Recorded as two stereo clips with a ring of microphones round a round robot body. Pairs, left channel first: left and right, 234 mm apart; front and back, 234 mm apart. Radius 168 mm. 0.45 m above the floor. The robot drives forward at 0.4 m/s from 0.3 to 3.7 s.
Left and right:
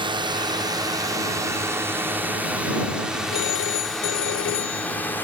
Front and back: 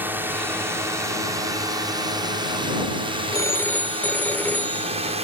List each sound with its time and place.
0.0 s a drone: 110° right; by 5.2 s 165° left
3.3 s a phone ringing: 75° left; by 5.2 s 85° left